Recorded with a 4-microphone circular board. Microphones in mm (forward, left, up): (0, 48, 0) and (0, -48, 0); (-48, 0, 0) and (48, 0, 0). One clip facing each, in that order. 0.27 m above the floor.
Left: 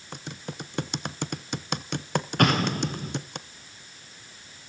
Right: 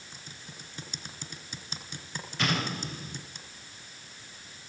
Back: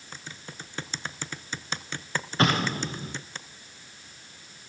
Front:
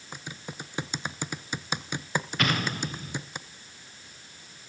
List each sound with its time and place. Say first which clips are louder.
0.1 s typing on a keyboard: left 13 dB, front 3 dB; 75° left, 1.0 m
2.4 s an explosion: left 7 dB, back 6 dB; 120° left, 4.5 m